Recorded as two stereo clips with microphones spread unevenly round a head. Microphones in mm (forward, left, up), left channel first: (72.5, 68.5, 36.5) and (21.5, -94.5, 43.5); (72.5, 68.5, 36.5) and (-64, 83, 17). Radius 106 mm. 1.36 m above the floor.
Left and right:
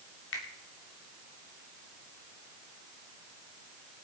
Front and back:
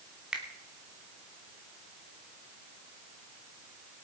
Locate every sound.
0.3 s a finger snap: 90° left, 3 m